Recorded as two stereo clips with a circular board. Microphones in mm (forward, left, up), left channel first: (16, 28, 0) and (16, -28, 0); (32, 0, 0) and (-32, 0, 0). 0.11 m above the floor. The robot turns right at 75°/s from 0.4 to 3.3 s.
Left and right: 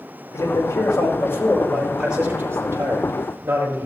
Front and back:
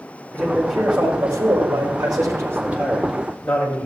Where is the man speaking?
70° left, 6 m; by 3.9 s 75° right, 6 m.